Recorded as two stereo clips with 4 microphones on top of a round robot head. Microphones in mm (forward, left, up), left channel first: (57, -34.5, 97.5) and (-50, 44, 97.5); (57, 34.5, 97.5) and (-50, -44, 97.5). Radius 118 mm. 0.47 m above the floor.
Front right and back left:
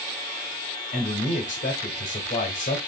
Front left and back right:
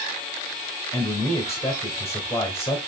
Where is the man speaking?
35° right, 3 m.